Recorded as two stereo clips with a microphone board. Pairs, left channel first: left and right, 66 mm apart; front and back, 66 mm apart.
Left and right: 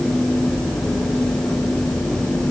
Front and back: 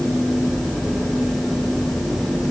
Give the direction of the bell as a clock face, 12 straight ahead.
I don't hear a bell.